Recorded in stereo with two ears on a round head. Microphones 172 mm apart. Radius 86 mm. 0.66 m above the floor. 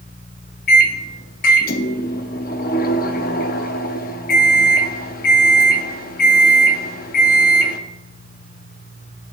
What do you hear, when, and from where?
0.7 s a microwave: 45° left (ahead or behind), 0.7 m